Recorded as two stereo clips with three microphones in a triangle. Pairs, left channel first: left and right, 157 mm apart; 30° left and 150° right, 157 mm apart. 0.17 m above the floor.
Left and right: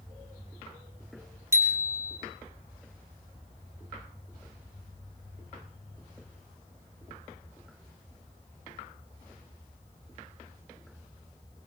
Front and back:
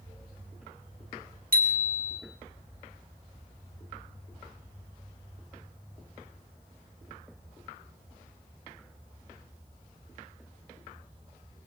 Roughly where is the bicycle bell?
Behind.